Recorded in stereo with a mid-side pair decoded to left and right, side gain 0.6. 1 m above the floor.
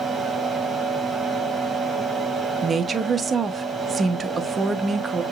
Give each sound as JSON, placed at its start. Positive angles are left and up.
{"t": 0.0, "sound": "a fan", "azimuth_deg": -20, "distance_m": 1.8}
{"t": 2.6, "sound": "a woman speaking", "azimuth_deg": -25, "distance_m": 0.8}